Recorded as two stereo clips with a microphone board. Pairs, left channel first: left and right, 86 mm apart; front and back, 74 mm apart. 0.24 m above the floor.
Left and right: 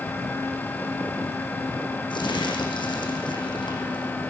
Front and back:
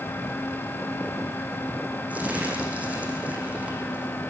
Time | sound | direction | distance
2.1 | crumpling | 110° left | 4 m